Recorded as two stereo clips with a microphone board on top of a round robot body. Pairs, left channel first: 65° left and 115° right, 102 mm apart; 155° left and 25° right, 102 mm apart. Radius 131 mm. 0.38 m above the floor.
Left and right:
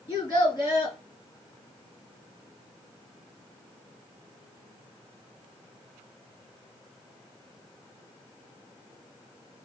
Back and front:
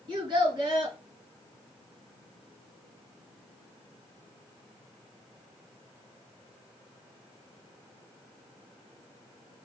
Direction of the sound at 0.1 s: 15° left.